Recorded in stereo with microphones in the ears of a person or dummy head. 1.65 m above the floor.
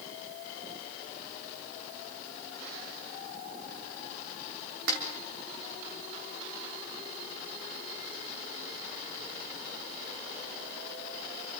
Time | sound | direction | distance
4.9 | a snare drum | 60° right (ahead or behind) | 3.5 m